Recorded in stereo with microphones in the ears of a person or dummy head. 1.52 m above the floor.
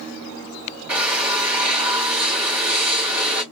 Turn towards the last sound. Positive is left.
turn(degrees=-10)  # may be behind; listen again after turning